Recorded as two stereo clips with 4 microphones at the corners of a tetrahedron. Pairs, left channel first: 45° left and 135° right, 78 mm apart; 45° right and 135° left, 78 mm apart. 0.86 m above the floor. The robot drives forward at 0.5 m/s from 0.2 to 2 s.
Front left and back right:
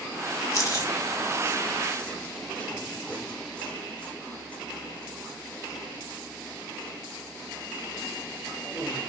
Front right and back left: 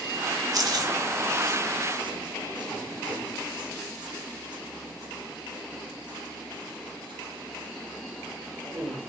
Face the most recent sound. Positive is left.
turn(degrees=120)